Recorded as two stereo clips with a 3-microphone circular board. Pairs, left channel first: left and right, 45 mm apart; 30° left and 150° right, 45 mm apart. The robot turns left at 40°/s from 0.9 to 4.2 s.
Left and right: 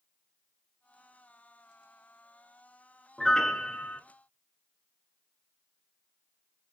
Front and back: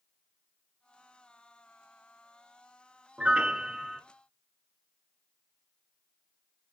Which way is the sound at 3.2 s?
170° left.